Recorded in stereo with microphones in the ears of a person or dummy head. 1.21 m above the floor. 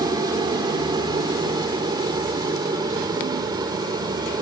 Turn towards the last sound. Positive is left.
turn(degrees=-25)  # may be behind; listen again after turning